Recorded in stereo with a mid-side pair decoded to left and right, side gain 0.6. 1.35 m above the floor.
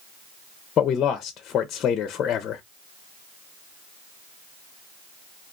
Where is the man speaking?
45° left, 0.6 m.